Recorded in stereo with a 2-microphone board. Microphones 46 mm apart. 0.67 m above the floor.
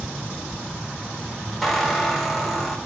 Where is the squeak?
Centre (ahead or behind), 1.2 m.